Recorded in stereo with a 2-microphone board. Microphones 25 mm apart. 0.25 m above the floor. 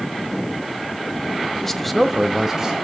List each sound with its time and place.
1.6 s a man speaking: 15° left (ahead or behind), 1.0 m; by 2.8 s 30° right (ahead or behind), 1.4 m